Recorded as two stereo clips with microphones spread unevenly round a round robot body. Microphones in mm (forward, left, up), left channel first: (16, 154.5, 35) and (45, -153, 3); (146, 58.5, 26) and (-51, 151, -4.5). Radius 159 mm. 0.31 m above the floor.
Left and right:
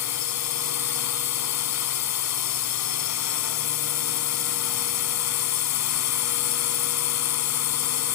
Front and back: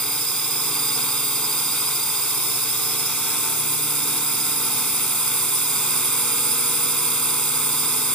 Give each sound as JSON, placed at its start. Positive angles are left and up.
{"t": 0.0, "sound": "a drone", "azimuth_deg": 60}